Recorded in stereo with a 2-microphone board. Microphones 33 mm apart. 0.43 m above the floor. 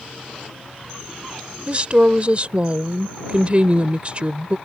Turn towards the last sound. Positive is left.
turn(degrees=-35)  # may be behind; listen again after turning